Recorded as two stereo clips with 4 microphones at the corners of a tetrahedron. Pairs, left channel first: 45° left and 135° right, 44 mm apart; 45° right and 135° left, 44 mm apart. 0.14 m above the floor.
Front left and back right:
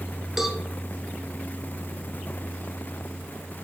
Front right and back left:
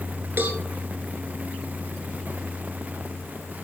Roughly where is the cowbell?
Behind left.